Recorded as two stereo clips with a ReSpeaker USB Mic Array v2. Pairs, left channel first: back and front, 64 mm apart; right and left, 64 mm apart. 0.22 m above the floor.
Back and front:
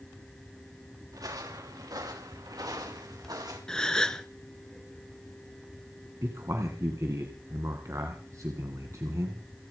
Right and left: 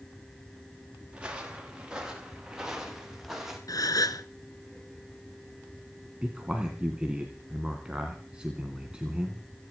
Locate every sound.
1.1 s footsteps: 15° left, 5 m; by 3.6 s 5° left, 6.5 m
3.7 s a gasp: 100° right, 1.0 m
6.2 s a man speaking: 20° left, 2.5 m